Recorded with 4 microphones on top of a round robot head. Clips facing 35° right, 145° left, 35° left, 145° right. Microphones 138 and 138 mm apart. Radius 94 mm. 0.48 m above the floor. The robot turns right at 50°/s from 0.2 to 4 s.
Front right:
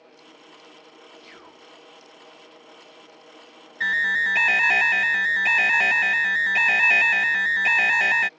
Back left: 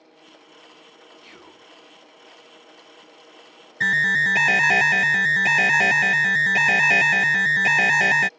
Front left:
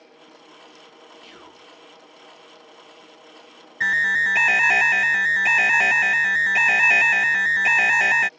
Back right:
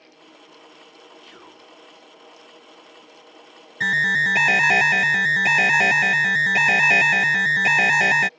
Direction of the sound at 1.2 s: 115° left.